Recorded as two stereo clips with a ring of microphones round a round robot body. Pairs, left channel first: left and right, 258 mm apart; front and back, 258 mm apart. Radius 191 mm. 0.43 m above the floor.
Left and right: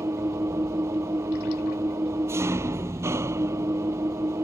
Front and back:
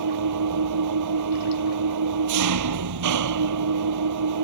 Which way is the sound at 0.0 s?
175° right.